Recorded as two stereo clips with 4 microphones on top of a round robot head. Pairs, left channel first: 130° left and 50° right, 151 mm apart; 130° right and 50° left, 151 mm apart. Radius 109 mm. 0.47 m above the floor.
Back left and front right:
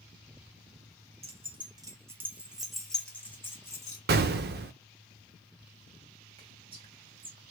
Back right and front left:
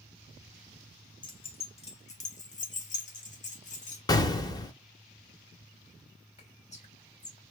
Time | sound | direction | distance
1.2 | keys jangling | 80° right | 1.0 m
4.1 | an explosion | 65° right | 0.6 m
6.4 | whispering | 100° right | 2 m